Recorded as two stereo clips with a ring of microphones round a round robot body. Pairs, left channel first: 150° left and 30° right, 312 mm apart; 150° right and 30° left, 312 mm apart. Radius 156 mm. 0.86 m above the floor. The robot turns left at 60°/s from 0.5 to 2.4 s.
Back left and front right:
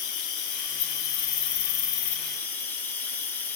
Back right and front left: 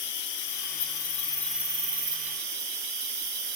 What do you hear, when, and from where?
0.0 s an insect: straight behind, 1.3 m; by 3.6 s 65° left, 1.3 m